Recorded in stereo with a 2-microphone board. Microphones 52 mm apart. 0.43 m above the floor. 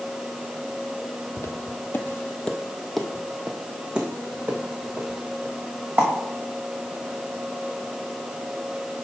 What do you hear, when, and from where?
1.4 s footsteps: 65° left (ahead or behind), 0.8 m; by 6.1 s 30° right (ahead or behind), 2.5 m